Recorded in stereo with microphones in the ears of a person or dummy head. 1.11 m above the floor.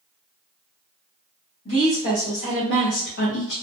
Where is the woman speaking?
75° left (ahead or behind), 1.4 m; by 3.5 s 55° left (ahead or behind), 0.5 m.